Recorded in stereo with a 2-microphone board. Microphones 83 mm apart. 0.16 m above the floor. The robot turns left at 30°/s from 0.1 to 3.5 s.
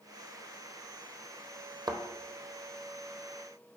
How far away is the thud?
About 0.9 m.